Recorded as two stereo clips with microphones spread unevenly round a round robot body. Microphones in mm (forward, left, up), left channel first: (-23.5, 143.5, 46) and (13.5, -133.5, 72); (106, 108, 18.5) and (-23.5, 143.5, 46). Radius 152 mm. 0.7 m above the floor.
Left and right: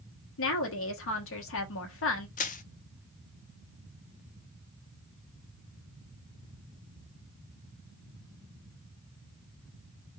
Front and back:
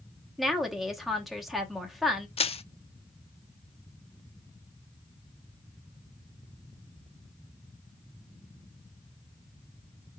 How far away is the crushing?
About 0.5 m.